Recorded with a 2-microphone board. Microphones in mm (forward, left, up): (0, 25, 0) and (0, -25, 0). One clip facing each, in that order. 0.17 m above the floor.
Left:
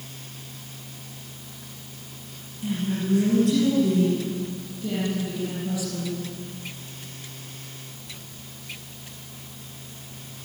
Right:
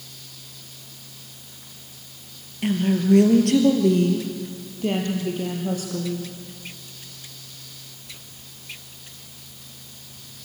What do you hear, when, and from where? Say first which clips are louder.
2.6 s a woman speaking: right 6 dB; 70° right (ahead or behind), 3.5 m; by 6.3 s 50° right (ahead or behind), 5.5 m